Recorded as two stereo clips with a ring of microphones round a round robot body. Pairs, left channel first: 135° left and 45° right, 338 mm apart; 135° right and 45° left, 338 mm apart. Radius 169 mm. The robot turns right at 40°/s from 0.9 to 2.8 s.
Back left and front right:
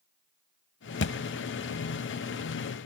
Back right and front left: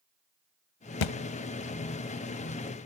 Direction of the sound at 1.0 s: 165° right.